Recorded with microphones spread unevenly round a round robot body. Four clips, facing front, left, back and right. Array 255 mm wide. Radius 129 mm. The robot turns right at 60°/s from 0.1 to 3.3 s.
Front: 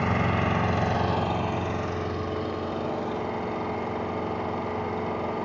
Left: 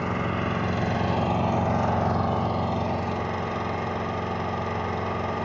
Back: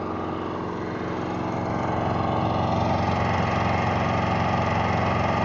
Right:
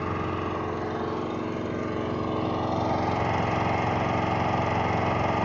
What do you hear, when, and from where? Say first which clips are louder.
0.0 s an engine running: left 2 dB, front 3 dB; straight ahead, 2 m; by 5.5 s 170° right, 2 m